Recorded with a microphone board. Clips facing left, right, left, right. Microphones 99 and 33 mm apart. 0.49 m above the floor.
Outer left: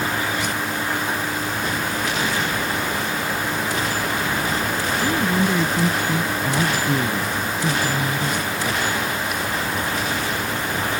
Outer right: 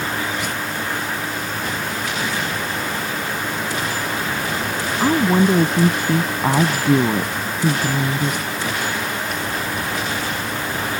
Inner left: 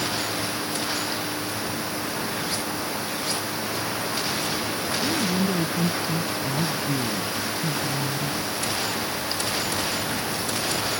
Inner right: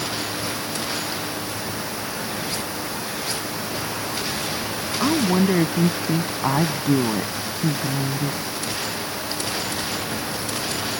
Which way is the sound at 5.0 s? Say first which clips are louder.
Outer right 6 dB, inner right 7 dB; 45° right (ahead or behind).